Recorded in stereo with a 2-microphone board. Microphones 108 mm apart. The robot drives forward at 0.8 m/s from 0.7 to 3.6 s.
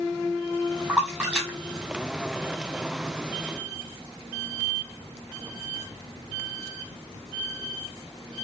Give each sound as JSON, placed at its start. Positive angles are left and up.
{"t": 0.9, "sound": "a splash", "side_deg": -10, "distance_m": 4.0}